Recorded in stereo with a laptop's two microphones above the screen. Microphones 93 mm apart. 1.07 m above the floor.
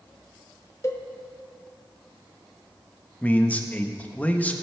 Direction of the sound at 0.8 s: 35° left (ahead or behind).